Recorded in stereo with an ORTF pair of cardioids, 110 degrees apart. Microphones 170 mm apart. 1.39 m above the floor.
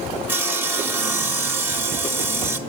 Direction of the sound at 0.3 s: 10° right.